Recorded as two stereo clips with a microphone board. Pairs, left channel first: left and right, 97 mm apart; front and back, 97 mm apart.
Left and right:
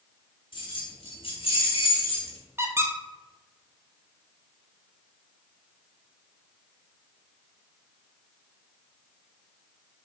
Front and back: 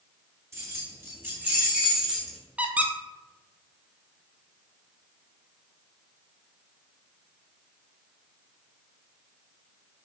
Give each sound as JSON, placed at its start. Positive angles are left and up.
{"t": 0.5, "sound": "keys jangling", "azimuth_deg": 120, "distance_m": 2.5}
{"t": 2.6, "sound": "a squeak", "azimuth_deg": -120, "distance_m": 0.8}